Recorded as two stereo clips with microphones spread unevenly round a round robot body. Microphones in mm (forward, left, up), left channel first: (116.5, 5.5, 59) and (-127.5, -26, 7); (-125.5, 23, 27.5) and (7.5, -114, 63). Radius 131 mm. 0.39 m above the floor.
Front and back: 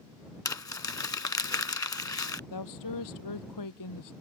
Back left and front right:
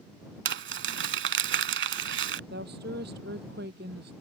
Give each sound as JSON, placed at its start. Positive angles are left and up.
{"t": 0.5, "sound": "crumpling", "azimuth_deg": -70}
{"t": 2.5, "sound": "a woman speaking", "azimuth_deg": 5}